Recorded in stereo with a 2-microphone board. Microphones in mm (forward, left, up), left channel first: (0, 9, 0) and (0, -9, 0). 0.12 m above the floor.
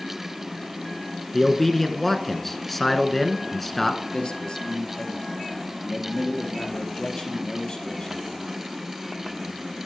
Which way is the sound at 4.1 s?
50° left (ahead or behind).